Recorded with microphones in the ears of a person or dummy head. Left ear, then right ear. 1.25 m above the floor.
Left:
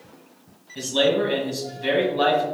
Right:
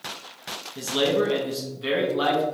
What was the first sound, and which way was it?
A man speaking, 15° left (ahead or behind).